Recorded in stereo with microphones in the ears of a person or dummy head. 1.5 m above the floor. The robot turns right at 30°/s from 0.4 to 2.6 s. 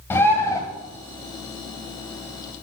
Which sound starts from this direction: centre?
A bird, at 0.1 s.